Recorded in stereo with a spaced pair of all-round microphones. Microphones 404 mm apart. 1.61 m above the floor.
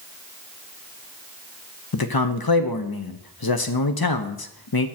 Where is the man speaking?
60° left (ahead or behind), 0.8 m.